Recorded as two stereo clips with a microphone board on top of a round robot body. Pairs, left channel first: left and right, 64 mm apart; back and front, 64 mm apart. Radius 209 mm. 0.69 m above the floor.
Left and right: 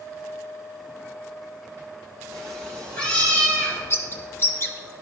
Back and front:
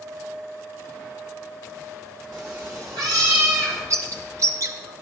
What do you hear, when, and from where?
2.3 s a cat meowing: 10° left, 2.0 m; by 3.8 s 25° left, 2.5 m
3.9 s a bird: 35° left, 0.9 m